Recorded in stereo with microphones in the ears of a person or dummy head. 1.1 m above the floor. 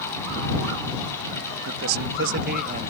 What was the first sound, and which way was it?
A man speaking, 80° right.